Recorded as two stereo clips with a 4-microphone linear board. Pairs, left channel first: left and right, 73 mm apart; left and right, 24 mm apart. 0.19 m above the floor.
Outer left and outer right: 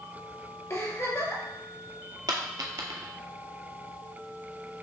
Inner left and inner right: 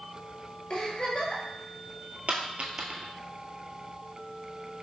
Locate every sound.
0.7 s a giggle: 45° left (ahead or behind), 1.1 m
2.3 s a dropped coin: 60° right (ahead or behind), 0.7 m